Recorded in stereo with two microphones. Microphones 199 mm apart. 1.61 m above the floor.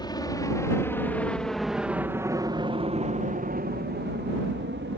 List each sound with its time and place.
0.0 s a helicopter: 20° left (ahead or behind); by 5.0 s 70° right (ahead or behind)